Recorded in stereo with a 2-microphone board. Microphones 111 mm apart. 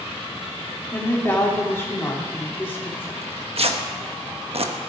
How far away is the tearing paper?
About 1.1 m.